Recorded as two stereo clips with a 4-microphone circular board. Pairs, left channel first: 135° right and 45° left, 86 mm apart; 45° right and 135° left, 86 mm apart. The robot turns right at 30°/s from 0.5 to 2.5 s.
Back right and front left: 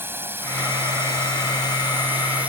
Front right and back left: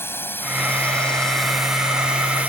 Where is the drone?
Straight ahead; by 2.5 s 95° left.